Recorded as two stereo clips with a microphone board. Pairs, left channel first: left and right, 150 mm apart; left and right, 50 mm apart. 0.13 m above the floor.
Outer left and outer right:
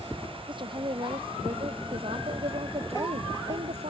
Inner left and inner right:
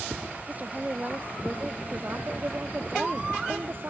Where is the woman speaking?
30° right (ahead or behind); by 3.9 s 50° right (ahead or behind).